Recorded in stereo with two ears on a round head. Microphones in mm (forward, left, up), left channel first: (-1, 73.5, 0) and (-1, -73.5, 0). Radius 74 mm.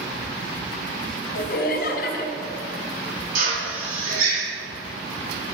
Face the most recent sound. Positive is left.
turn(degrees=-55)  # may be behind; listen again after turning